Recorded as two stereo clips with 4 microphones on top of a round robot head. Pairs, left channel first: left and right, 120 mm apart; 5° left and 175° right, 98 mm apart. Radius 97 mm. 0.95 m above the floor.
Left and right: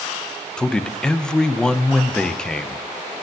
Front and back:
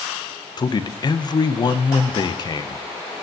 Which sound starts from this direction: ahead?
A man speaking, at 0.6 s.